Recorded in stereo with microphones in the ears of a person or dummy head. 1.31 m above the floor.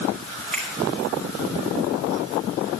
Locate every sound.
0.5 s a finger snap: 10° left (ahead or behind), 4 m